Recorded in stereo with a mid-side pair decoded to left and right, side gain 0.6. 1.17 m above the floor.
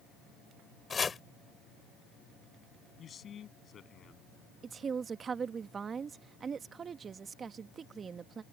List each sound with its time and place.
0.9 s chopping: 25° left
3.0 s a man speaking: 40° left
4.6 s a woman speaking: 35° right